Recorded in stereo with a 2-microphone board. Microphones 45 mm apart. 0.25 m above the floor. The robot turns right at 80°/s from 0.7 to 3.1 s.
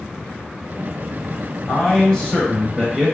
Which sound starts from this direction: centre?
A man speaking, at 1.7 s.